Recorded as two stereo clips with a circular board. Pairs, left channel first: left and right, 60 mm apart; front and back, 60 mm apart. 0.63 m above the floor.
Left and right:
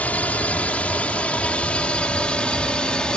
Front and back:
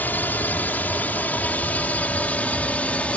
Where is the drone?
40° left; by 3.2 s 35° left.